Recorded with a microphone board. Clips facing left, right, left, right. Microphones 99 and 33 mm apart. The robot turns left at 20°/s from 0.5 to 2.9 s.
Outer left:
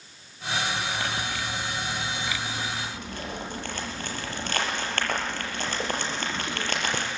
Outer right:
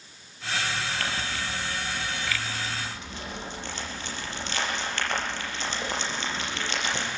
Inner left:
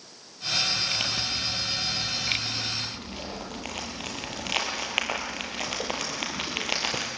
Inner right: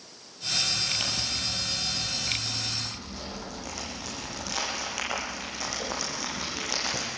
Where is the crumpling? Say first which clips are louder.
Outer left 1 dB, inner left 2 dB; 15° left (ahead or behind), 7 m; by 7.1 s 50° left (ahead or behind), 7 m.